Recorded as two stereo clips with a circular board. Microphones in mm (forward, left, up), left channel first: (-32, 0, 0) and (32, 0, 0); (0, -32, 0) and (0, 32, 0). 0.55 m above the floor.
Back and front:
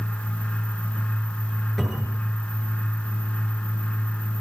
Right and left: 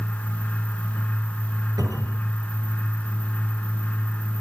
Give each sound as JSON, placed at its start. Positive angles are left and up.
{"t": 1.8, "sound": "a cupboard door", "azimuth_deg": 95, "distance_m": 9.0}